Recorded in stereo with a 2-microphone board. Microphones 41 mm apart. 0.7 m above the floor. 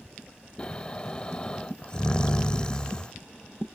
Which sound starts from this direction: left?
Snoring, at 0.6 s.